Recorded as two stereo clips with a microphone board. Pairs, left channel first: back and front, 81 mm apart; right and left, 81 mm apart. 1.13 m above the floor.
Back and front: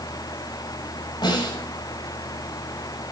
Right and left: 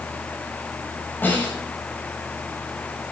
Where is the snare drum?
155° right, 6.5 m.